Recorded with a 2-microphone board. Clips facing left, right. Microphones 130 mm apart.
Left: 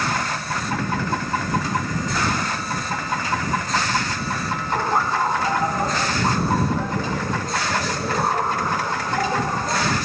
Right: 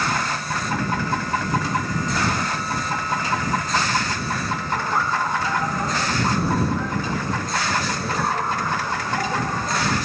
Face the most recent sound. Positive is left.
turn(degrees=15)  # may be behind; listen again after turning